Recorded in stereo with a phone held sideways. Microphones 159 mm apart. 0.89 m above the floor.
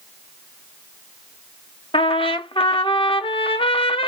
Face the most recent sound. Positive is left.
turn(degrees=30)  # may be behind; listen again after turning